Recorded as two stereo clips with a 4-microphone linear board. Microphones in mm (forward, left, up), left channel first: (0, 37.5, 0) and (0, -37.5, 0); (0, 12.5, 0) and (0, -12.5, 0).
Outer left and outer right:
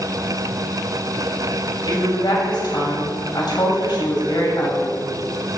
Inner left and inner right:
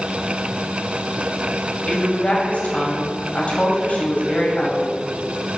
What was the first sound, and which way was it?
A woman speaking, 70° left (ahead or behind).